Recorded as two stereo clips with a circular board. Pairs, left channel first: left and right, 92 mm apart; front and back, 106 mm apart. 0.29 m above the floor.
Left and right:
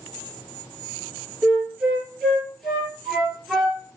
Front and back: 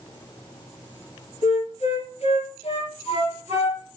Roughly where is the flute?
Ahead.